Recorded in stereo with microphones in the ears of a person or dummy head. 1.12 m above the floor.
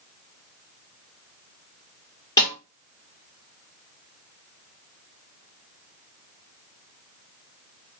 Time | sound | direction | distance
2.4 | a snare drum | 15° left (ahead or behind) | 1.5 m